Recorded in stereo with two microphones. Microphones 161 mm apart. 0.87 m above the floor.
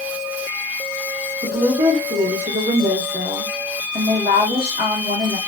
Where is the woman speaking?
70° right (ahead or behind), 1.5 m.